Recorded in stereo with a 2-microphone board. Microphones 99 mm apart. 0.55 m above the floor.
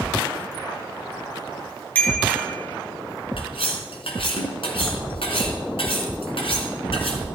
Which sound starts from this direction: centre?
A bicycle bell, at 1.9 s.